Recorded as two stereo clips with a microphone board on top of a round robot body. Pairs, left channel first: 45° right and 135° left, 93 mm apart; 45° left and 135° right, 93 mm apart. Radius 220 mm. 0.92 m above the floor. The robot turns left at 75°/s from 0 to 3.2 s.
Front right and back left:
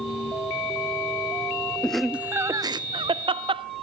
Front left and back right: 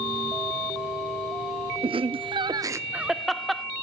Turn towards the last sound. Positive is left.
turn(degrees=135)